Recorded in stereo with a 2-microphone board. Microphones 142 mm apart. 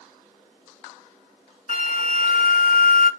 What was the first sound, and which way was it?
A flute, 70° left (ahead or behind).